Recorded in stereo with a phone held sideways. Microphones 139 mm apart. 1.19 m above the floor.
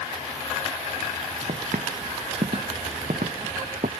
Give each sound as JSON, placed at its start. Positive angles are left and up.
{"t": 1.5, "sound": "footsteps", "side_deg": -75}